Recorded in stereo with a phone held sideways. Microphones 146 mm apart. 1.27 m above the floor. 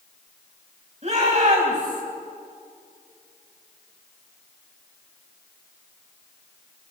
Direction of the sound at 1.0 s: 50° right (ahead or behind).